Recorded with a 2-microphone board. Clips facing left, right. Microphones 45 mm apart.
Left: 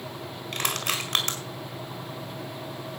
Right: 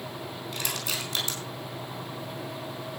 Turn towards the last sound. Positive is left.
turn(degrees=65)  # may be behind; listen again after turning